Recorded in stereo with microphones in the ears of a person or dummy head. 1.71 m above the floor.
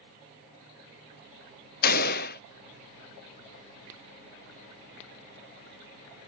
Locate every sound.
1.8 s a gunshot: 60° left (ahead or behind)